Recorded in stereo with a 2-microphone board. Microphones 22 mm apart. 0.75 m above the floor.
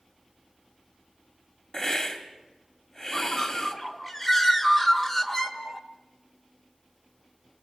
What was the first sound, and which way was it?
A hiss, 40° left (ahead or behind).